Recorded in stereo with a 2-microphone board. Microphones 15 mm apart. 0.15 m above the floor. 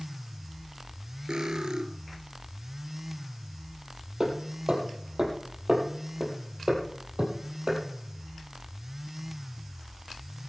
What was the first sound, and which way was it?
Cutlery clinking, 60° right (ahead or behind).